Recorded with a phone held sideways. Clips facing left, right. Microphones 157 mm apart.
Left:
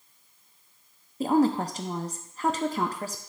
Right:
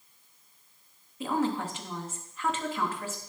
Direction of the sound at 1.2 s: 40° left (ahead or behind).